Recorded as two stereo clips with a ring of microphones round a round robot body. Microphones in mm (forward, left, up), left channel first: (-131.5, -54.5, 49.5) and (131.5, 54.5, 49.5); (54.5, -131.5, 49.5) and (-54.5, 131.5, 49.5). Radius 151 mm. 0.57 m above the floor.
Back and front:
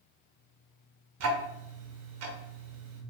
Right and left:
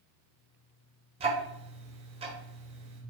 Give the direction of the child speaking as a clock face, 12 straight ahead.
I don't hear a child speaking.